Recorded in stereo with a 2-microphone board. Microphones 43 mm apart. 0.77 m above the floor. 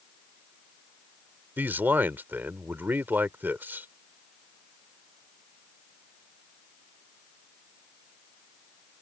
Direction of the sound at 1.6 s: 55° right (ahead or behind).